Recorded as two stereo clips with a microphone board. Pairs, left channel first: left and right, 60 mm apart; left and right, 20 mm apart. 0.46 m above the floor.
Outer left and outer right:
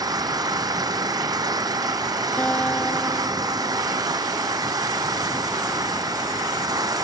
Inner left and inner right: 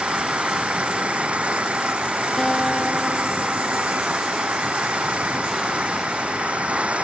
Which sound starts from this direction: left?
A guitar, at 2.4 s.